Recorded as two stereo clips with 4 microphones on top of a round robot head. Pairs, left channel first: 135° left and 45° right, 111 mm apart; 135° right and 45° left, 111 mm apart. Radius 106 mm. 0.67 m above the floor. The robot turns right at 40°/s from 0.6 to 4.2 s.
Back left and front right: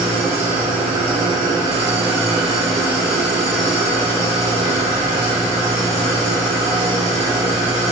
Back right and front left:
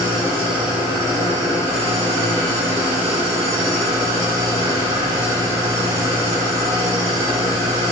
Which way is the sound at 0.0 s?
35° right.